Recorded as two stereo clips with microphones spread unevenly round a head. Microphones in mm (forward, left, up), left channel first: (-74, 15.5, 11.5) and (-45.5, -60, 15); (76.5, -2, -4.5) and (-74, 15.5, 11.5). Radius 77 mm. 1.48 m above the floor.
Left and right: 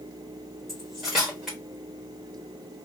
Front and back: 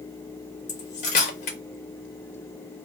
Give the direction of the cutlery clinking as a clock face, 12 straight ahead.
11 o'clock.